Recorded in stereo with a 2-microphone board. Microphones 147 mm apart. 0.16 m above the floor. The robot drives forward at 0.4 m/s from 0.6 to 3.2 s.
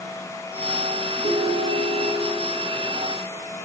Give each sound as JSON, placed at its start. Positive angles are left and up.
{"t": 1.2, "sound": "a ringtone", "side_deg": -45, "distance_m": 1.3}